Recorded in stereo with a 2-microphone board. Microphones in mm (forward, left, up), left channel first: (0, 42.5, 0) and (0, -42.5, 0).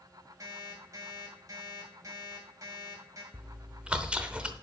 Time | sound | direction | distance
0.4 | an alarm clock | 45° right (ahead or behind) | 2.5 m
3.3 | chewing | 10° right (ahead or behind) | 0.8 m